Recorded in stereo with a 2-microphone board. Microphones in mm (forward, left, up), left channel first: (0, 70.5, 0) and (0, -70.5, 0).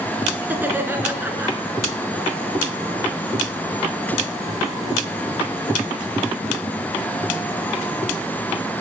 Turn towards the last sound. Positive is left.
turn(degrees=-15)  # may be behind; listen again after turning